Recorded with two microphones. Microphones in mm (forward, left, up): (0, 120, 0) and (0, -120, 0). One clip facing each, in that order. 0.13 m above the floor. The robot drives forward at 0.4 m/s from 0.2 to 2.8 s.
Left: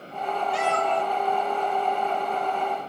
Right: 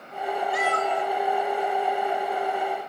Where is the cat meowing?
30° left (ahead or behind), 1.5 m; by 1.0 s 25° left (ahead or behind), 1.7 m.